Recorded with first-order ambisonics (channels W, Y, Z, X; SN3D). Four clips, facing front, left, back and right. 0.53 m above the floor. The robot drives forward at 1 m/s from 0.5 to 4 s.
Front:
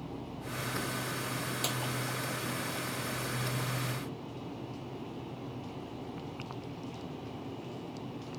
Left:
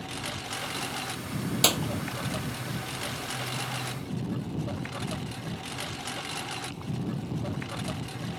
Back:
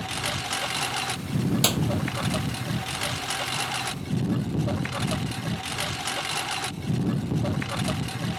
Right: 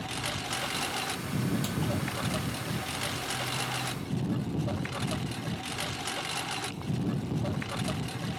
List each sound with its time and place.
0.0 s a lawn mower: 175° right
1.6 s a clap: 130° left